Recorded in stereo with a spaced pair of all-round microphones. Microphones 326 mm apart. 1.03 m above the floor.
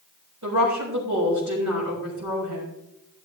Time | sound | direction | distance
0.4 | a woman speaking | 60° right (ahead or behind) | 5.5 m